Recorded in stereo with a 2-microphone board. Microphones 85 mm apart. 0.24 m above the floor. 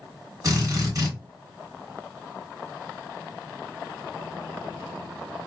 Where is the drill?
45° right (ahead or behind), 2 m.